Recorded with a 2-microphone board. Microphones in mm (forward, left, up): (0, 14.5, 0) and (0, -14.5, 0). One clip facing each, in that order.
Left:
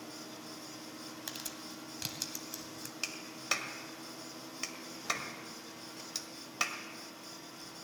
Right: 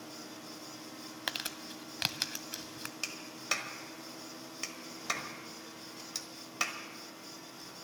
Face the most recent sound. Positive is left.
turn(degrees=0)  # may be behind; listen again after turning